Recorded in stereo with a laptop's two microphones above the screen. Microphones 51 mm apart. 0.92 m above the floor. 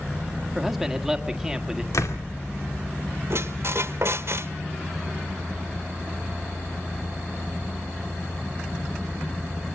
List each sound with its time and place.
0.6 s a man speaking: 5° right (ahead or behind), 1.4 m
1.9 s a door slam: 80° left, 2.5 m
3.3 s a squeak: 55° right (ahead or behind), 0.9 m